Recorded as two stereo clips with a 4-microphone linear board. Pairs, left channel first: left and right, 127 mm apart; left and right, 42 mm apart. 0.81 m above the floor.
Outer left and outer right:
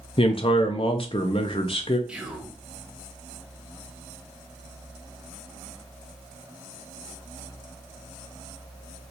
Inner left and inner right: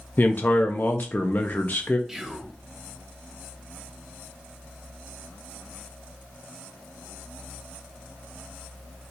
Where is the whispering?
10° right (ahead or behind), 0.8 m.